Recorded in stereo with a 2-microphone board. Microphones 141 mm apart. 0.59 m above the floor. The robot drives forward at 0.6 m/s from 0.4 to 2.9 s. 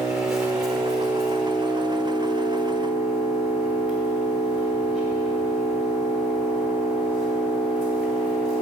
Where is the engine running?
5° right (ahead or behind), 1.3 m; by 8.6 s centre (ahead or behind), 2.5 m.